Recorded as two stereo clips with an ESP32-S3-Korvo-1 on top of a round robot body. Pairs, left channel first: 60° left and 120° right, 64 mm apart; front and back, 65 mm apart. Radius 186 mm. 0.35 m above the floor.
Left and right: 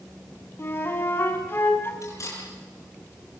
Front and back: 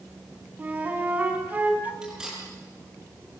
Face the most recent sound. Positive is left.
turn(degrees=100)